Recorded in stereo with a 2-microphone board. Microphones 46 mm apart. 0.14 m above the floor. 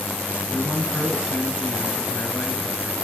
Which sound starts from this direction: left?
A man speaking, at 0.5 s.